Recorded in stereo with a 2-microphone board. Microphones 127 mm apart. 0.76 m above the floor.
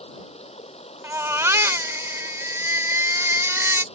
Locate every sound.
0.0 s running water: 55° left (ahead or behind)
1.0 s a baby crying: 20° right (ahead or behind)